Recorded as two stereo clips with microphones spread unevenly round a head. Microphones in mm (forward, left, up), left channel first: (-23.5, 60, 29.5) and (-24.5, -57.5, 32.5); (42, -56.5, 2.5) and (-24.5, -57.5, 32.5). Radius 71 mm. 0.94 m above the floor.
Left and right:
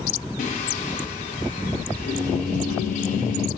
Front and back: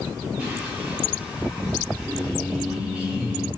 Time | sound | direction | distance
0.4 | singing | 95° left | 0.7 m